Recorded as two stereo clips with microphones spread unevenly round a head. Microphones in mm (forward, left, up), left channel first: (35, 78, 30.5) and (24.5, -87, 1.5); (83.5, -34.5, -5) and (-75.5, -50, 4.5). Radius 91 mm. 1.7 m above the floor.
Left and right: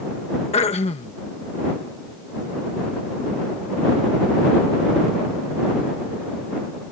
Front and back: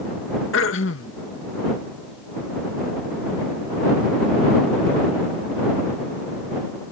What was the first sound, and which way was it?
Throat clearing, 35° left.